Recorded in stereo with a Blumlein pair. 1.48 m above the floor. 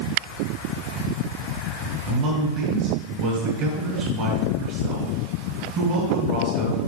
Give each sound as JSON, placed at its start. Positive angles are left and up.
{"t": 2.1, "sound": "a man speaking", "azimuth_deg": -35, "distance_m": 2.5}